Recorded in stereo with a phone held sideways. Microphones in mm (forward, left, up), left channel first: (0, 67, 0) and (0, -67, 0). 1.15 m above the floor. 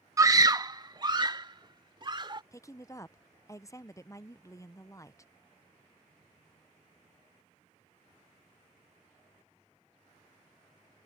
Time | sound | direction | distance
0.2 | a scream | 25° right (ahead or behind) | ?
2.5 | a woman speaking | 25° left (ahead or behind) | ?